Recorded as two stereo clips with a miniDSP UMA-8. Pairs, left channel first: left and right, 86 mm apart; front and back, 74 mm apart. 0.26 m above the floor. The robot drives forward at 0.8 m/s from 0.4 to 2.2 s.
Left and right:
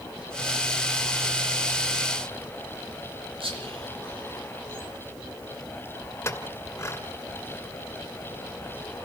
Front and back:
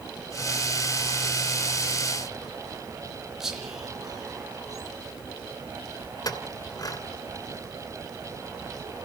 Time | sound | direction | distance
3.4 | whispering | 95° right | 7.5 m
6.2 | a clink | 30° left | 2.5 m